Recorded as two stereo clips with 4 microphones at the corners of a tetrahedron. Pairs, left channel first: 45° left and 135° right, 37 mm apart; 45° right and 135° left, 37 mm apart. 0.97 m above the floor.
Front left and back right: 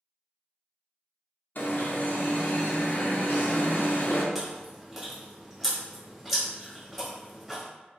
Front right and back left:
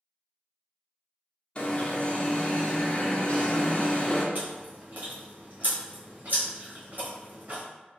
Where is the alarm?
15° left, 0.5 m.